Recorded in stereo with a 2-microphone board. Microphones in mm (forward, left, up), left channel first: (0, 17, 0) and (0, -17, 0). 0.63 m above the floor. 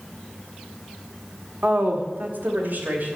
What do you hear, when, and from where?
1.6 s a woman speaking: 60° right (ahead or behind), 1.6 m